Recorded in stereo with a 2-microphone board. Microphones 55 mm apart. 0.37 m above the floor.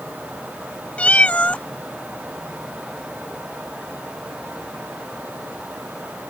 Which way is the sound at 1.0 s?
25° left (ahead or behind).